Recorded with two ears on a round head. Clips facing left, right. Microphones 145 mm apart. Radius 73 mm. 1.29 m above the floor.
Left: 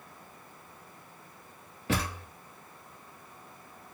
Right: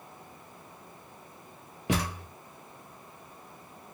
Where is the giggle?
I don't hear a giggle.